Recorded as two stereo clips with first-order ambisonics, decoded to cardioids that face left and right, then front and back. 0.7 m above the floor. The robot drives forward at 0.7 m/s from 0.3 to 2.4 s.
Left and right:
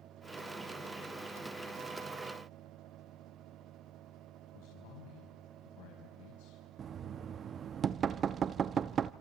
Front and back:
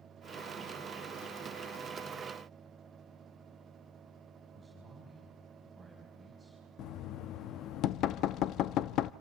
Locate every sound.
4.5 s a man speaking: 95° left, 4.5 m
6.8 s knocking: 30° right, 0.5 m